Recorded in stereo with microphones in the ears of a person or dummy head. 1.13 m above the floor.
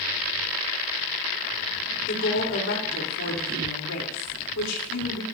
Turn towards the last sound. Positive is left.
turn(degrees=75)  # may be behind; listen again after turning